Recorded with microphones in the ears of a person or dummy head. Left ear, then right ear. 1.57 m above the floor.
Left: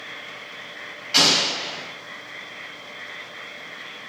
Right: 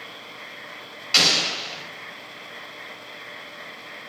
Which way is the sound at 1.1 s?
25° right (ahead or behind).